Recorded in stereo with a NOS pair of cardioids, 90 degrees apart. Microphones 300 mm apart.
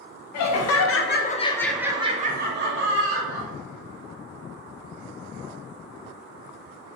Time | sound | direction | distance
0.3 | laughter | 70° left | 0.8 m